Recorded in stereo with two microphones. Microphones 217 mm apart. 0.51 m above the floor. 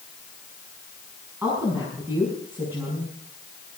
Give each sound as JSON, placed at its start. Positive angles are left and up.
{"t": 1.4, "sound": "a woman speaking", "side_deg": -10, "distance_m": 6.0}